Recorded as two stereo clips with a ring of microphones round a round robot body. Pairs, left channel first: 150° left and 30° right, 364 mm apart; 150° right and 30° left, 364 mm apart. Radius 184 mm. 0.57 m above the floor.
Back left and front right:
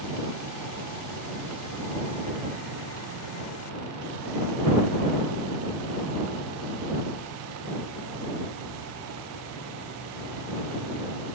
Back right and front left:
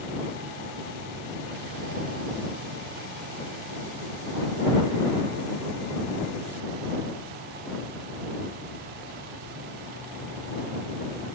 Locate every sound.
Only background noise.